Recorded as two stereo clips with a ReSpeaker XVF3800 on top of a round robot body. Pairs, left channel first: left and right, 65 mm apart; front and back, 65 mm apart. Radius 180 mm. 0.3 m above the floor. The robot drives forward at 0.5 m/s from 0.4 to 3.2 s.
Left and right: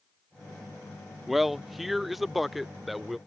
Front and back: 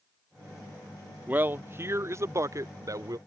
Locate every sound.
1.3 s a man speaking: 175° right; by 3.2 s straight behind